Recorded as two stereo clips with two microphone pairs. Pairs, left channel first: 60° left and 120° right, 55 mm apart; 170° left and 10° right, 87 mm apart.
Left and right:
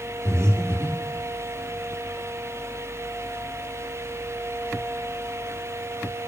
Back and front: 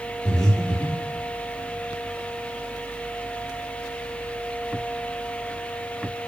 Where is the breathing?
150° right, 2 m.